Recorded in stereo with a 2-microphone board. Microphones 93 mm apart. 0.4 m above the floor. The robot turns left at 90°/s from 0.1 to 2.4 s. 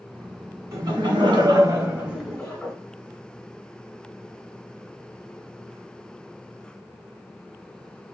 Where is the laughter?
40° right, 1.6 m; by 2.7 s 170° left, 1.6 m.